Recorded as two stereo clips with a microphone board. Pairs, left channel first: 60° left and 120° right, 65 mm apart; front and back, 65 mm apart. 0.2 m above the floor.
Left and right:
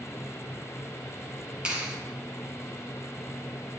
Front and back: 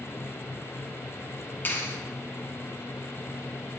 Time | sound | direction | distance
1.6 | a clap | 50° right | 1.8 m